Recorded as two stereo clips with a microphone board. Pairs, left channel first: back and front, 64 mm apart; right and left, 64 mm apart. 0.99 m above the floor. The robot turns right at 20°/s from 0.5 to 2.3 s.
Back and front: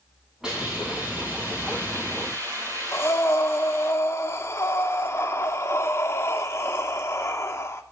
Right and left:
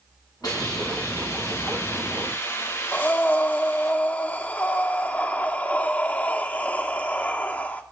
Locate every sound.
0.4 s a hiss: 80° right, 6.5 m; by 3.9 s 45° right, 6.5 m
2.9 s breathing: 150° right, 0.9 m